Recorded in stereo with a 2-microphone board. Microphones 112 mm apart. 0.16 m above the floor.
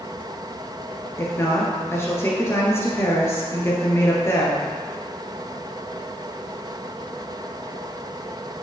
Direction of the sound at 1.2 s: 25° left (ahead or behind).